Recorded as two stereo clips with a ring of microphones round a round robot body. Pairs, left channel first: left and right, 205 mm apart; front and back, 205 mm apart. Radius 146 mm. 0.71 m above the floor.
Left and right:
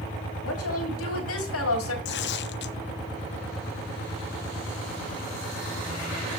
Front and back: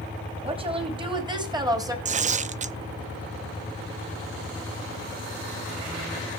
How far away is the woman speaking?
About 4.5 m.